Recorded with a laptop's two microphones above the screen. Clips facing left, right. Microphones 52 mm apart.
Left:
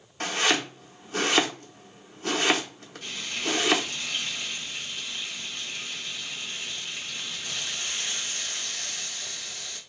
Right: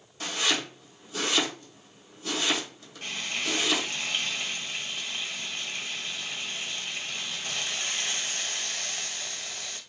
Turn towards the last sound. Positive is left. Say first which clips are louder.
# even
turn(degrees=-50)  # may be behind; listen again after turning